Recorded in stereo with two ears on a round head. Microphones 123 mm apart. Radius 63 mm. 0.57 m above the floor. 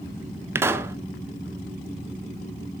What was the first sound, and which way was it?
A pop, 20° right (ahead or behind).